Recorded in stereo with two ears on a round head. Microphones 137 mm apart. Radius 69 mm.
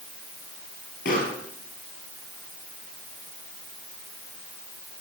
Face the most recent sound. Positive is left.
turn(degrees=65)  # may be behind; listen again after turning